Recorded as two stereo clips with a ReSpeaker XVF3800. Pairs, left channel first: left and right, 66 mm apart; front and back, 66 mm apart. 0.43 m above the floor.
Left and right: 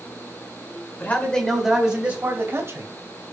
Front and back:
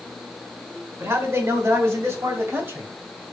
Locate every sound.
1.0 s a man speaking: 145° left, 2 m; by 2.9 s 130° right, 2.5 m